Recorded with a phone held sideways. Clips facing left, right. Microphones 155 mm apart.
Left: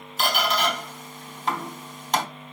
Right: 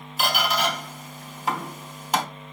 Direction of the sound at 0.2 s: 10° right (ahead or behind).